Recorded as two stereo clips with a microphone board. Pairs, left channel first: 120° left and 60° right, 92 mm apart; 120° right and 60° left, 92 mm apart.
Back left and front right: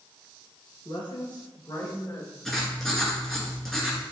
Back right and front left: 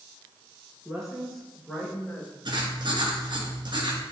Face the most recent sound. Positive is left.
turn(degrees=35)